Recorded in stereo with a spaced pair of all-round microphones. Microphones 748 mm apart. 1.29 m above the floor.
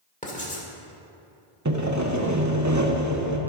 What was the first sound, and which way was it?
Writing, 10° left (ahead or behind).